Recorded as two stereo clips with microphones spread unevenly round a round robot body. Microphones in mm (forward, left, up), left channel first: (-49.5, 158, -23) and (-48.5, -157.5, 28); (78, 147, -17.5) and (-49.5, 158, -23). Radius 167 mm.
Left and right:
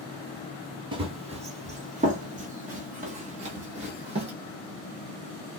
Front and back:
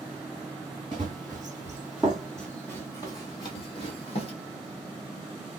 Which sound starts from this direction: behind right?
Running footsteps, at 0.9 s.